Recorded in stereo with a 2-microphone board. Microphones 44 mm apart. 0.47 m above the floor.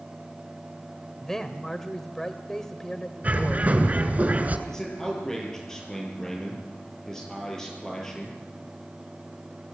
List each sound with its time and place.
1.2 s a man speaking: 10° left (ahead or behind), 2 m
3.2 s a bird: 35° right (ahead or behind), 2.5 m
4.7 s a man speaking: 15° left (ahead or behind), 9.5 m